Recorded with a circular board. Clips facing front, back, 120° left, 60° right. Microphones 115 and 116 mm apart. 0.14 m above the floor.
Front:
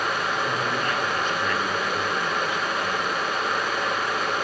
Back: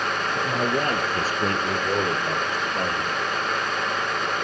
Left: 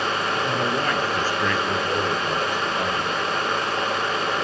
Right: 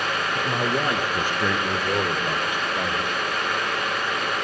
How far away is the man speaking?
About 2 m.